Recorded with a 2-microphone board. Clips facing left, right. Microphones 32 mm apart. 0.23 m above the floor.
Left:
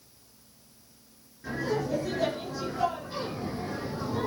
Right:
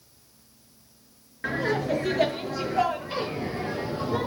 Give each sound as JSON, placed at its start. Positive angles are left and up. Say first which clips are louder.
{"t": 1.4, "sound": "laughter", "louder": "right 4 dB", "side_deg": -70, "distance_m": 3.0}